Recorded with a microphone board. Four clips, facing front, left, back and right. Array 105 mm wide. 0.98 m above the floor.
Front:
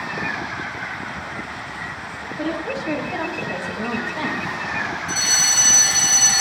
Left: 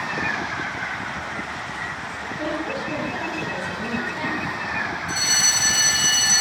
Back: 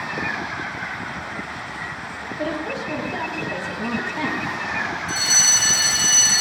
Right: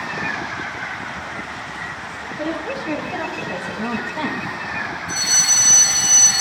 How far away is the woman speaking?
About 7 m.